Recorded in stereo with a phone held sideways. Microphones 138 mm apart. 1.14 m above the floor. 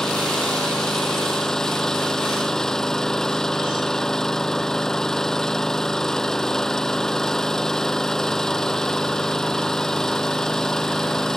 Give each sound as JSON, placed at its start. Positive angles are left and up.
{"t": 0.0, "sound": "an engine running", "side_deg": 5}